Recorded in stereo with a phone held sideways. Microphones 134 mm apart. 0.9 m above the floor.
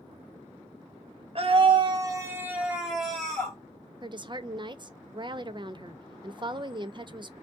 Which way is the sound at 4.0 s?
35° right (ahead or behind).